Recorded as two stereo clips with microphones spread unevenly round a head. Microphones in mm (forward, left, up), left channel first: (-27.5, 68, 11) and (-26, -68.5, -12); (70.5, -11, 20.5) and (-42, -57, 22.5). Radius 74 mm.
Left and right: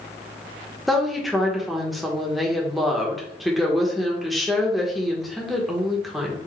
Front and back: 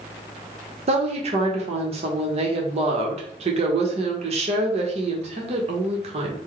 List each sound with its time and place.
0.9 s a woman speaking: 170° right, 1.0 m